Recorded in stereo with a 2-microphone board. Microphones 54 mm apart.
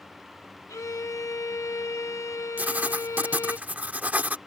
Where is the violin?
85° left.